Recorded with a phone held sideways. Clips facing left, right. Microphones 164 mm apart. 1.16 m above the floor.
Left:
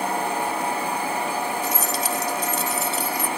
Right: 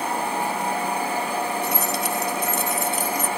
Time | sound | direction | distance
1.6 | keys jangling | 65° right (ahead or behind) | ?